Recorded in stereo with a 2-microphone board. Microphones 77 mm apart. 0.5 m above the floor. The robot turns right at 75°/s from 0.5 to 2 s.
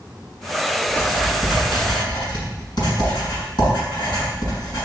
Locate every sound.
0.9 s writing: 25° left (ahead or behind), 5.5 m; by 4.9 s 65° left (ahead or behind), 5.5 m